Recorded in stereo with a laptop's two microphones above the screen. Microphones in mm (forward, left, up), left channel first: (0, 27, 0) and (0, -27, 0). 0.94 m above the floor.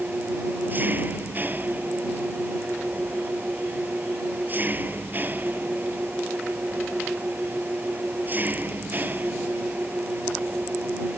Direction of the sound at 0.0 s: 35° right (ahead or behind).